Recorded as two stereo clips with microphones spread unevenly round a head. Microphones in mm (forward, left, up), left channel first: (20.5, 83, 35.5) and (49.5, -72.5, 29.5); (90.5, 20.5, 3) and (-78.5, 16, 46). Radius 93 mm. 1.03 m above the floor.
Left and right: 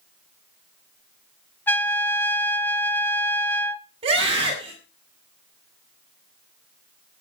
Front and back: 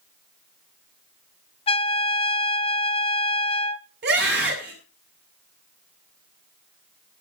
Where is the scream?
140° right, 7 m.